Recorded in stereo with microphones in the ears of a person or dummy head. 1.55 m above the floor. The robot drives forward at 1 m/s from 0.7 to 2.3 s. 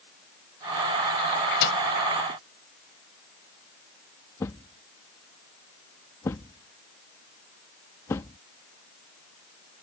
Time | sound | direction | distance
1.6 | a microwave | 65° left (ahead or behind) | ?
4.4 | a thud | 20° left (ahead or behind) | ?